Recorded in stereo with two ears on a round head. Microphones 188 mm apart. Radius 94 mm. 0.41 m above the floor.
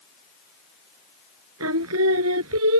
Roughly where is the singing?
Right.